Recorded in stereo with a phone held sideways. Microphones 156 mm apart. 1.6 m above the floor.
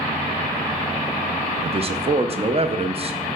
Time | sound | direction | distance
1.6 | a man speaking | 40° right (ahead or behind) | 0.6 m